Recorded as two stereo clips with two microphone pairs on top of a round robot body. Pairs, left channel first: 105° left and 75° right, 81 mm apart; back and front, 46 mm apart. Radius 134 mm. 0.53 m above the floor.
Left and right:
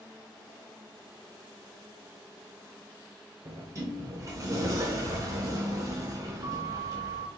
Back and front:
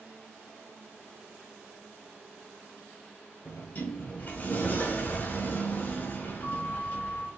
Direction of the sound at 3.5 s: 130° right.